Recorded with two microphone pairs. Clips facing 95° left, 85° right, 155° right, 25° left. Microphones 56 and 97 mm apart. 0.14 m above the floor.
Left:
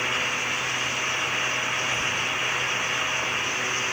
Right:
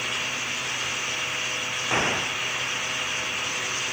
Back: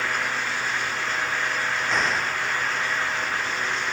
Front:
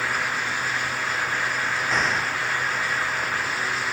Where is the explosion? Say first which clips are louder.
Right 1 dB, even; 65° right.